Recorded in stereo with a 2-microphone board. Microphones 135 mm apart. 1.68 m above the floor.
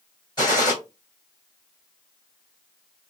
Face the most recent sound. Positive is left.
turn(degrees=30)  # may be behind; listen again after turning